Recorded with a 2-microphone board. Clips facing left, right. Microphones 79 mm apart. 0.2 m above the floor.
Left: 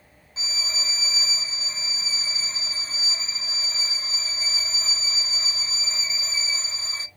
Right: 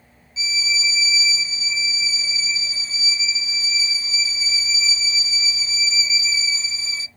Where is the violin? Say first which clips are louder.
Right 8 dB; 50° left (ahead or behind), 0.5 m.